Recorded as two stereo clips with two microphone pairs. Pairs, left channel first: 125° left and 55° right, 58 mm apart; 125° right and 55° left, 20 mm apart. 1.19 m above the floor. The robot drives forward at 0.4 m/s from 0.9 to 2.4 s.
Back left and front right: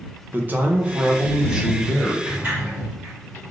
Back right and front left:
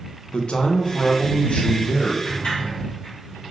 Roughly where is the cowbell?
I don't hear a cowbell.